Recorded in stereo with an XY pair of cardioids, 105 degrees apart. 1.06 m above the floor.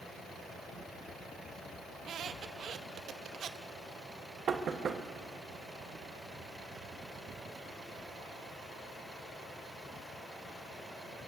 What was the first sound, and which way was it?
A squeak, 65° right.